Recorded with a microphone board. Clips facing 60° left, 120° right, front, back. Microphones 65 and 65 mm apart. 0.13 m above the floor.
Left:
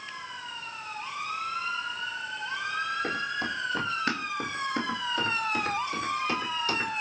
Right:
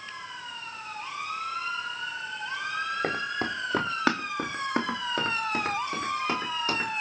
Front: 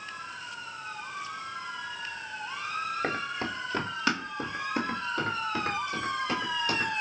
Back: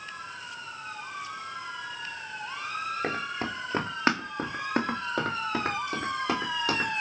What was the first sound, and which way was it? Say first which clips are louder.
Running footsteps: right 1 dB, even; 90° right.